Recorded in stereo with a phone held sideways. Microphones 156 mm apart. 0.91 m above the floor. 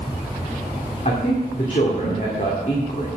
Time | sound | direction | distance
1.1 | a man speaking | 50° left (ahead or behind) | 2 m